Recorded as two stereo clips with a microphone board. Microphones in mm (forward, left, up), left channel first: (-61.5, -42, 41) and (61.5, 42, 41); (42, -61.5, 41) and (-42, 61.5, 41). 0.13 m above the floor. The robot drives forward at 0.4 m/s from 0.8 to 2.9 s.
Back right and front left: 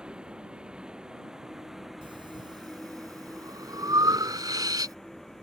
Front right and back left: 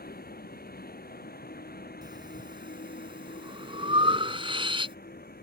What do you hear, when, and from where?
0.0 s a vehicle: 50° right; by 5.4 s 55° right
2.0 s breathing: 75° left; by 5.0 s 90° left